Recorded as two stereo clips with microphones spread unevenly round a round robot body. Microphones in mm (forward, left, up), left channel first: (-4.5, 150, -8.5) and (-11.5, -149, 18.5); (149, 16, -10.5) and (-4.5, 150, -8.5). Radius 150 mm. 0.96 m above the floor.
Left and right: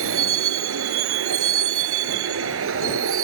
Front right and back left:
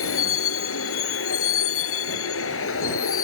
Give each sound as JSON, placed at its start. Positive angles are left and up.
{"t": 0.0, "sound": "a vehicle", "azimuth_deg": -45}